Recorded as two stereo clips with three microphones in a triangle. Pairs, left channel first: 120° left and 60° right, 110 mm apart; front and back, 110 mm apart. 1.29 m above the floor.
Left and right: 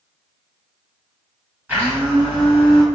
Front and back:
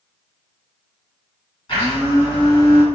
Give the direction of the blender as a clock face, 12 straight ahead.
12 o'clock.